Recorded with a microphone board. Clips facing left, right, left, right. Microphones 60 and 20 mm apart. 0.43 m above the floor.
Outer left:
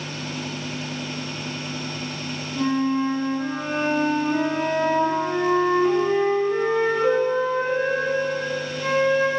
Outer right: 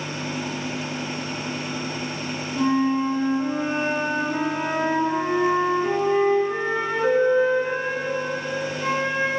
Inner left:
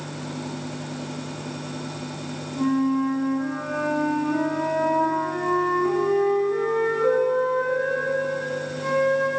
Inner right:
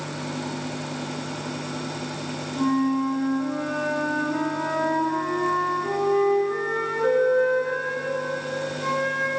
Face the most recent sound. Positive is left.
turn(degrees=0)  # may be behind; listen again after turning